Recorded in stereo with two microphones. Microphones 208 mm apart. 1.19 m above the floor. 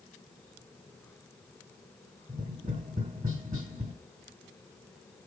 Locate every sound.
2.3 s tapping: 40° right (ahead or behind), 2 m